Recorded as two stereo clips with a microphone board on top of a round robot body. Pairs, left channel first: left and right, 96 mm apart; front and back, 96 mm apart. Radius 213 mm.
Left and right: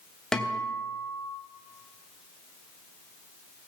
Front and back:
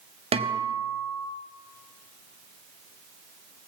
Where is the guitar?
175° left, 3 m.